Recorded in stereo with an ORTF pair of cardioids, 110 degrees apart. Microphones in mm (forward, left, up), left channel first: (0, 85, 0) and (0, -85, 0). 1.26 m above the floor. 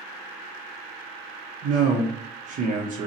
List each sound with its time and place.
1.6 s a man speaking: 50° right, 0.5 m